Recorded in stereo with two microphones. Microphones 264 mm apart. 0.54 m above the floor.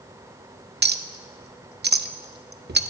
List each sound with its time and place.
0.8 s a clink: 40° right (ahead or behind), 0.5 m